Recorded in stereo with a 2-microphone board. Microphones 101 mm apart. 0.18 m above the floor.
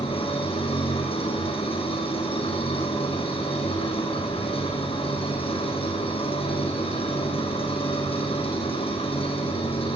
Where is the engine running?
65° left (ahead or behind), 7 m.